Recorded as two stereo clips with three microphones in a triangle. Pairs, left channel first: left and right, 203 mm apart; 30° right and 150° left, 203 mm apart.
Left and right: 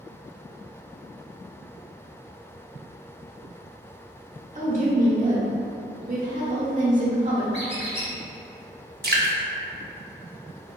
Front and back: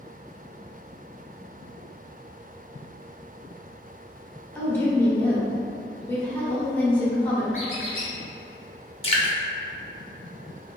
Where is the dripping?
85° right, 0.5 m.